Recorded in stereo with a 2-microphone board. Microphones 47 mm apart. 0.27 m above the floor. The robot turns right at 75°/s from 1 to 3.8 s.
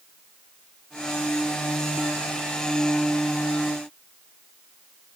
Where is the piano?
No piano in this recording.